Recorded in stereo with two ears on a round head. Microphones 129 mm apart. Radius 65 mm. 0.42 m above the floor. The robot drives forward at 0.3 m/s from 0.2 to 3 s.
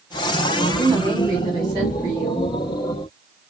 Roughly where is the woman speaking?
Right.